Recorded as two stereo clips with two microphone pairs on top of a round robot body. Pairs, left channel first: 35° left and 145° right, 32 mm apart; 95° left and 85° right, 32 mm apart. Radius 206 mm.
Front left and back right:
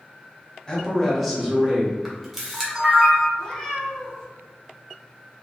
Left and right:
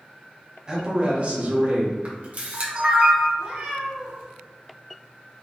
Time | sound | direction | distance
0.7 | a man speaking | 20° right | 1.2 m
2.0 | a camera shutter | 55° right | 1.4 m
3.4 | a cat meowing | 35° right | 0.6 m